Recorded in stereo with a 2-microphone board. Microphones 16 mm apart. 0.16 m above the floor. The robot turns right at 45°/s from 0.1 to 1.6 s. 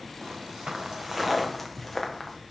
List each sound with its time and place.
0.2 s footsteps: 85° right, 1.0 m; by 2.4 s 25° left (ahead or behind), 1.5 m